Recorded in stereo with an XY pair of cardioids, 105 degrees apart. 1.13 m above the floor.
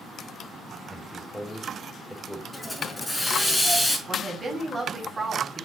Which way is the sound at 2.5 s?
10° left.